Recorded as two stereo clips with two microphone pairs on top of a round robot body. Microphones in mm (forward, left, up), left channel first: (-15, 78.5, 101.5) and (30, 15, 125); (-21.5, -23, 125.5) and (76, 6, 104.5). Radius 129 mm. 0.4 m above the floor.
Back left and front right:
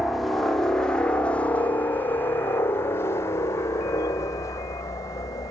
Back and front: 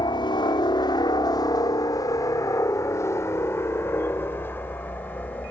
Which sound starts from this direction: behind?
A helicopter, at 0.0 s.